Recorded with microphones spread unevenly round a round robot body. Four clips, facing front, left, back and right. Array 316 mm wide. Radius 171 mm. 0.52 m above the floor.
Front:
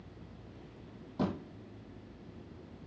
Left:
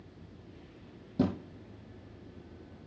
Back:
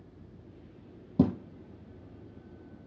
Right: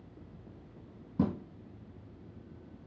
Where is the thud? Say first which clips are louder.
Left 1 dB, back 8 dB; 175° right, 1.6 m.